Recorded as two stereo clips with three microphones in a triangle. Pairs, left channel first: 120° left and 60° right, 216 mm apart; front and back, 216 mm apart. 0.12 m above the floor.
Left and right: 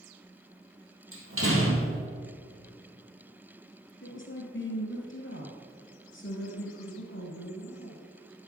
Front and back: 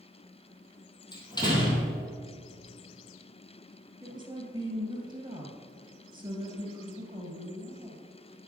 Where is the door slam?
70° right, 2.5 m.